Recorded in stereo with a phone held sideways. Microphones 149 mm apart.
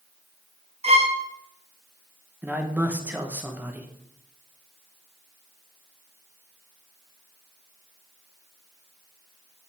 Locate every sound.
0.8 s a violin: 40° right (ahead or behind), 0.7 m
2.4 s a man speaking: 10° right (ahead or behind), 0.9 m